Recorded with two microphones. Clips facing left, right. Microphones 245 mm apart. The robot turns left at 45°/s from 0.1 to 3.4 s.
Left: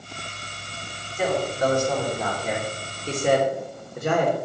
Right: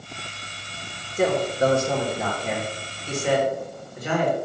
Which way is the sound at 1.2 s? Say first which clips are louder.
Right 3 dB; 50° right (ahead or behind).